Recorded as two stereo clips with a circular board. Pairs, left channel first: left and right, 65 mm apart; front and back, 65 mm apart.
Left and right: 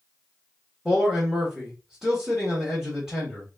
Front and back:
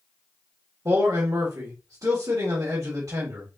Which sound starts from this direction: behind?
A man speaking, at 0.8 s.